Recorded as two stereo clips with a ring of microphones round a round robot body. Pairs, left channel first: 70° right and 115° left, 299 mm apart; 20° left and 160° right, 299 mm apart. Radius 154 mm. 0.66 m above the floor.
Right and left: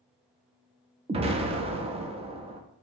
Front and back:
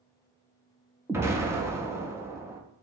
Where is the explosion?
135° left, 0.5 m.